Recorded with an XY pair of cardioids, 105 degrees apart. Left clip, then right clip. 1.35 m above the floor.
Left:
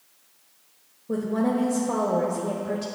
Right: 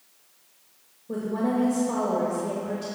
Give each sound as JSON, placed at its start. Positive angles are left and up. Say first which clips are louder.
{"t": 1.1, "sound": "a woman speaking", "louder": "left 2 dB", "azimuth_deg": 30, "distance_m": 1.6}